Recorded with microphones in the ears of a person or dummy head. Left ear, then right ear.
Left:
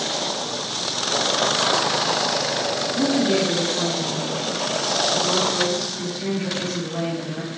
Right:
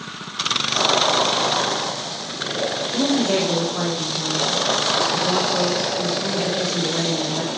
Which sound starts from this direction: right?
A woman speaking, at 2.9 s.